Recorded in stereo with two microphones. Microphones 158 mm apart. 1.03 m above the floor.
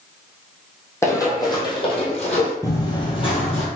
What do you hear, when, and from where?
1.0 s running footsteps: 20° left (ahead or behind), 1.9 m; by 2.5 s 50° left (ahead or behind), 1.5 m
2.6 s running footsteps: 20° left (ahead or behind), 1.5 m; by 3.7 s 40° left (ahead or behind), 1.9 m